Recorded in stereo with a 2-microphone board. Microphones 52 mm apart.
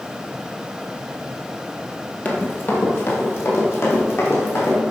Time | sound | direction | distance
2.2 | running footsteps | 35° left (ahead or behind) | 1.8 m